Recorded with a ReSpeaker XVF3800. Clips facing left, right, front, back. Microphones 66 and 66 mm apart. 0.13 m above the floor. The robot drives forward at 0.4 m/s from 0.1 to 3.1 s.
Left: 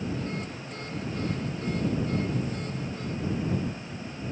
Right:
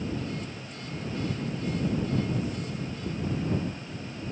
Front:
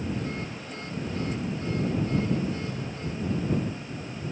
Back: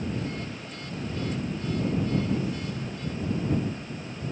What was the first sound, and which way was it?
Only background noise.